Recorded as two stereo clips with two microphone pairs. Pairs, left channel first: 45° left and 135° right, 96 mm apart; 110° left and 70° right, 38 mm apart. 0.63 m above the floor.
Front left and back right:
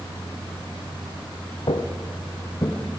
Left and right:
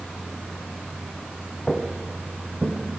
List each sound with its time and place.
1.7 s footsteps: 35° left, 1.6 m; by 2.8 s 15° right, 2.5 m